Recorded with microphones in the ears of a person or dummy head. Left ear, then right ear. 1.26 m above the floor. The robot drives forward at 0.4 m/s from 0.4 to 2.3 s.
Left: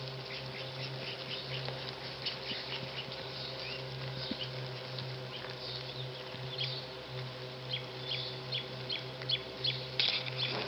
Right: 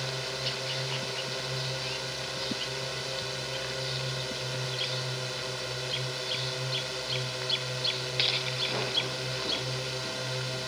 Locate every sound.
0.0 s a drone: 65° right (ahead or behind)